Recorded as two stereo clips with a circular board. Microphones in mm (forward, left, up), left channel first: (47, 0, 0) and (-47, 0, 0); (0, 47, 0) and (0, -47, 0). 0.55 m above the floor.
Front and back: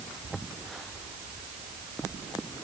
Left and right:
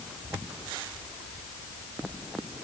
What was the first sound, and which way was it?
Only background noise.